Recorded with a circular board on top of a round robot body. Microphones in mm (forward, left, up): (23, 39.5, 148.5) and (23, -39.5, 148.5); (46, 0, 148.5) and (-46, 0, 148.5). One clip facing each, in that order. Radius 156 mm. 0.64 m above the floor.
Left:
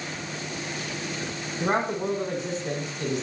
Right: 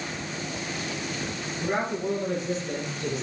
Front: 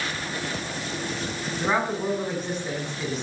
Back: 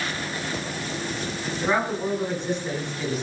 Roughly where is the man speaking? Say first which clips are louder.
Left 3 dB, back 1 dB; left.